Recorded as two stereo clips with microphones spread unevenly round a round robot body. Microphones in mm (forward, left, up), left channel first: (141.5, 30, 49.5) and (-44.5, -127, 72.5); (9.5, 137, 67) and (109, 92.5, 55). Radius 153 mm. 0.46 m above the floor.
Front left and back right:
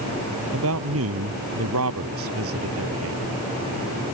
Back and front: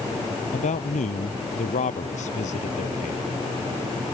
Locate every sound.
0.5 s a man speaking: 175° left